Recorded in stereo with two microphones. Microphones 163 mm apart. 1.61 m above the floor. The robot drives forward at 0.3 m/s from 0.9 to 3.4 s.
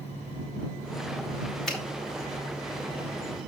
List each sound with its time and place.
1.7 s a finger snap: 5° left (ahead or behind), 3.5 m